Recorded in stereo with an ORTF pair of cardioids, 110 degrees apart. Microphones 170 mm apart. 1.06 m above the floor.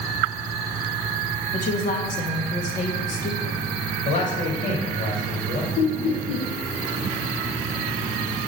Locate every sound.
1.5 s a woman speaking: 55° left, 1.4 m
4.0 s a man speaking: 50° left, 2.5 m
5.8 s laughter: 50° left, 2.5 m